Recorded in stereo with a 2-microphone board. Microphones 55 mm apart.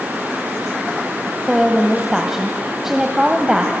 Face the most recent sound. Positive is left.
turn(degrees=-10)  # may be behind; listen again after turning